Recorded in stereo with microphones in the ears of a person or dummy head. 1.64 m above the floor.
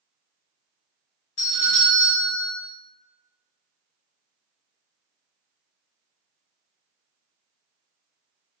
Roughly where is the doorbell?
Left.